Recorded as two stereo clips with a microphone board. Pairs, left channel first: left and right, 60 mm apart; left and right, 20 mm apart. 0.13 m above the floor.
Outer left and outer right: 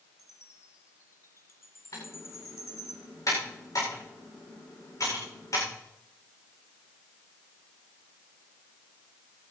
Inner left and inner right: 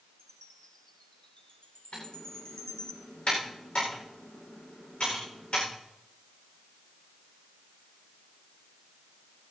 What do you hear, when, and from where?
0.2 s a chime: 50° left (ahead or behind), 2.5 m
1.9 s typing on a keyboard: 65° left (ahead or behind), 9 m